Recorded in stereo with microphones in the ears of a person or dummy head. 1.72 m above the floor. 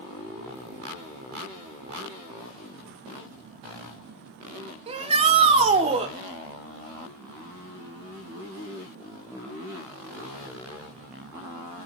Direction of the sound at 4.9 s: 30° right (ahead or behind).